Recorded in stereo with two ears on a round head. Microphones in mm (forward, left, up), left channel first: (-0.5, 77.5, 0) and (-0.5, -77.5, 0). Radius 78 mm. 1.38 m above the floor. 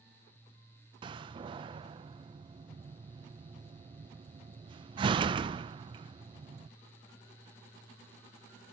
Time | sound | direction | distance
1.0 | a door slam | 30° right (ahead or behind) | 0.6 m